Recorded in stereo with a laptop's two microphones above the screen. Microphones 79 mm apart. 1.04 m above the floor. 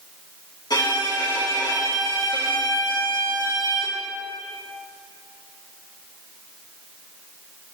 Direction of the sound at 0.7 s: 65° left (ahead or behind).